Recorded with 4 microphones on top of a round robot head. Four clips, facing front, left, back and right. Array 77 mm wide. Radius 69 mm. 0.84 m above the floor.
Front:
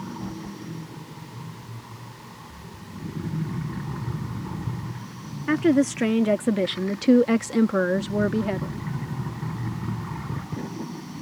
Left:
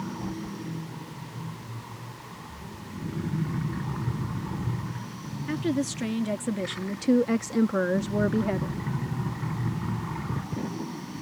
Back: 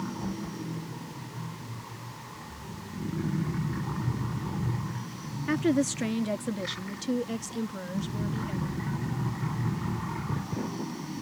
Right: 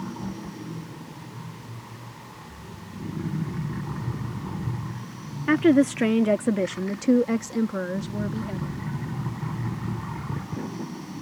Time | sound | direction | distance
5.5 | a woman speaking | 65° right | ?